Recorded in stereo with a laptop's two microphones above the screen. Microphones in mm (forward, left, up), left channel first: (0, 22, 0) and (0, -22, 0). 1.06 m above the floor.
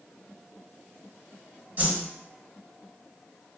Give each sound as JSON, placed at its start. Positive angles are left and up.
{"t": 1.8, "sound": "a whoosh", "side_deg": -40, "distance_m": 0.9}